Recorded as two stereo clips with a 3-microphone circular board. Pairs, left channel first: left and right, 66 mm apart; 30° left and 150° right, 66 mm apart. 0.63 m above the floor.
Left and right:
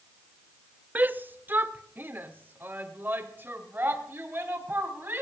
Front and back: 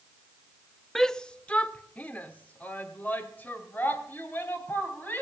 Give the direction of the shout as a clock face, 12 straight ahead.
2 o'clock.